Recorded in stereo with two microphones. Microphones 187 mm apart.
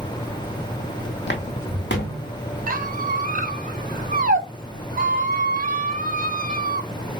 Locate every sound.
1.3 s footsteps: 70° left (ahead or behind), 0.8 m; by 2.3 s 75° left (ahead or behind), 1.6 m
2.7 s a squeak: 50° right (ahead or behind), 0.6 m